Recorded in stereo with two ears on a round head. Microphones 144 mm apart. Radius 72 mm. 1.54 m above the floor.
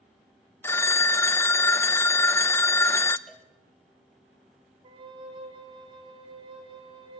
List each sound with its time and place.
0.6 s a phone ringing: 15° left (ahead or behind), 0.6 m
3.3 s a cowbell: 5° left (ahead or behind), 2.5 m
4.8 s a flute: 30° right (ahead or behind), 3 m